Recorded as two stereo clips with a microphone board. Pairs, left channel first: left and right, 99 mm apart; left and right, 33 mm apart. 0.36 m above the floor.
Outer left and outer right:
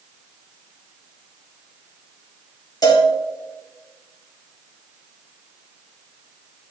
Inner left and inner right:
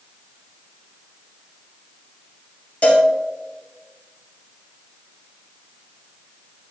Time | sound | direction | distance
2.8 | a cowbell | 40° left (ahead or behind) | 2.5 m